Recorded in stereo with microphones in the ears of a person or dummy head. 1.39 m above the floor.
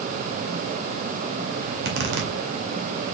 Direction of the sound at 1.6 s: 60° right (ahead or behind).